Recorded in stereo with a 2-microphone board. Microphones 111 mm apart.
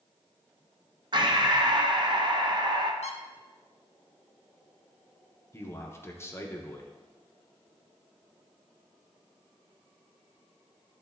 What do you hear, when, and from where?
1.1 s breathing: 45° right (ahead or behind), 0.6 m
3.0 s a squeak: 80° left, 0.6 m
5.5 s a man speaking: 25° left (ahead or behind), 0.8 m